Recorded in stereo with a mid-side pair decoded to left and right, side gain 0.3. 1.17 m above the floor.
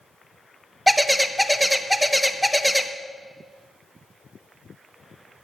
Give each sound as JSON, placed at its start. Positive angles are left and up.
{"t": 0.9, "sound": "a bird", "azimuth_deg": -5, "distance_m": 0.6}